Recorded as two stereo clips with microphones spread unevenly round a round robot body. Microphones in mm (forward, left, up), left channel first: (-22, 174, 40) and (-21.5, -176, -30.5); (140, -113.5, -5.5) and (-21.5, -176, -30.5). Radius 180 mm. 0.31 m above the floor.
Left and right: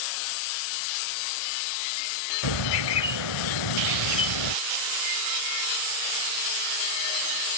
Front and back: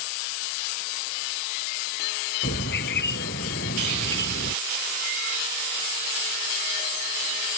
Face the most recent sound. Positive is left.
turn(degrees=70)